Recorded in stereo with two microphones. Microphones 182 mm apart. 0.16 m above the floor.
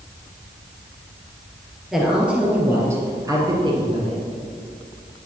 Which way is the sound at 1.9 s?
Centre (ahead or behind).